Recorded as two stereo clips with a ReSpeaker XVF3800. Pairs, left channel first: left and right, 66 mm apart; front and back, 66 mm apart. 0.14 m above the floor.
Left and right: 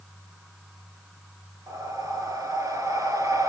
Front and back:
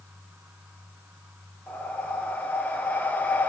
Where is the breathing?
65° right, 2.5 m.